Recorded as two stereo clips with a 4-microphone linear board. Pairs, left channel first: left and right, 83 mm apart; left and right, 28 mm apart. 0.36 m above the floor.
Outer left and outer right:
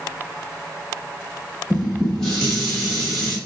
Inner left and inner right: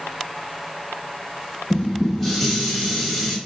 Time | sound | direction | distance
1.7 | dishes clattering | 10° left (ahead or behind) | 1.0 m